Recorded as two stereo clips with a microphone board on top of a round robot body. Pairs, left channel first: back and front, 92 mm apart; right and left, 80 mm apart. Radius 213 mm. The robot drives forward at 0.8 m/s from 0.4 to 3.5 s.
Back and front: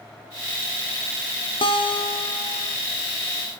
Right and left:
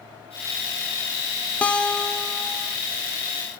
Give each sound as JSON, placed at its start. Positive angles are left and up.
{"t": 1.6, "sound": "a guitar", "azimuth_deg": -165, "distance_m": 0.8}